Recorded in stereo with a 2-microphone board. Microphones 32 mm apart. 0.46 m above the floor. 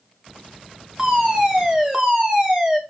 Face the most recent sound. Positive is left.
turn(degrees=-20)  # may be behind; listen again after turning